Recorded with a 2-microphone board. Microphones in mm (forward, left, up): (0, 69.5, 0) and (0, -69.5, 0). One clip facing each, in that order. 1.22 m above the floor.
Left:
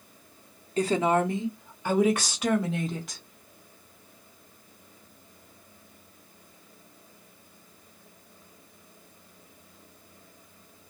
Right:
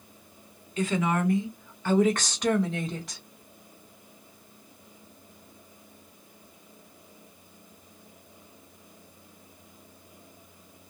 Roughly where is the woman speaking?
Left.